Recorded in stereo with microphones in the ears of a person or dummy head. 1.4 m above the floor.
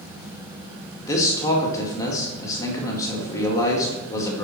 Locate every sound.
1.1 s a man speaking: 15° left (ahead or behind), 1.7 m